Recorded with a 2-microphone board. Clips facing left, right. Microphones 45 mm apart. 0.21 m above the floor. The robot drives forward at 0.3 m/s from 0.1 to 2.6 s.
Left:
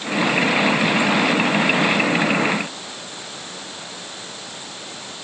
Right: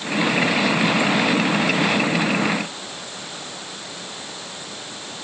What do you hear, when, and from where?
Only background noise.